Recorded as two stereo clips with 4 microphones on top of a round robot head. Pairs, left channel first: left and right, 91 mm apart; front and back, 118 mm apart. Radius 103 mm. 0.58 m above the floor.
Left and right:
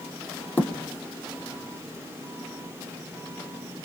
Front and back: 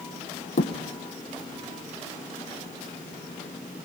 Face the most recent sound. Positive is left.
turn(degrees=20)